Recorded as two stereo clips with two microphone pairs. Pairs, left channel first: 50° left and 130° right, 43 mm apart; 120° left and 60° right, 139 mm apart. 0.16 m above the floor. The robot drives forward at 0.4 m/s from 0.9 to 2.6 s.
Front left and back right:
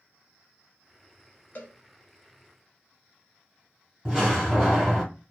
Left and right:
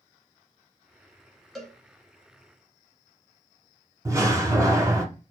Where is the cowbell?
35° left, 0.9 m; by 1.7 s 40° left, 0.9 m.